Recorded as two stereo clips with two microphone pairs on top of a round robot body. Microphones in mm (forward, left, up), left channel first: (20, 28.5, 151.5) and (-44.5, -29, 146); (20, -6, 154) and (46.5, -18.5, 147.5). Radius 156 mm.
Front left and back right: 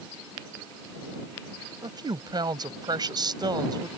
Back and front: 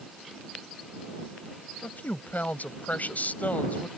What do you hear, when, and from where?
1.8 s a woman speaking: 175° right